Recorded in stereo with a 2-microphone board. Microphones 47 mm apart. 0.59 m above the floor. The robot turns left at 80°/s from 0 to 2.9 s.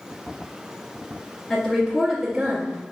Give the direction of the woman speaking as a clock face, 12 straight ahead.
11 o'clock.